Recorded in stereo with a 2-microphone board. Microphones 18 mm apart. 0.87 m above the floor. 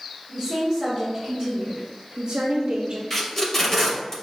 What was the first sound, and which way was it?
A woman speaking, 20° left (ahead or behind).